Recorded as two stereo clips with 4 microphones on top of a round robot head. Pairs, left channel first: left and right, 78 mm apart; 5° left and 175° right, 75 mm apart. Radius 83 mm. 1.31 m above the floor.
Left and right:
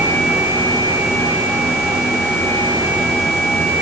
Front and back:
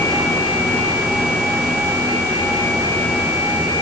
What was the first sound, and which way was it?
Only background noise.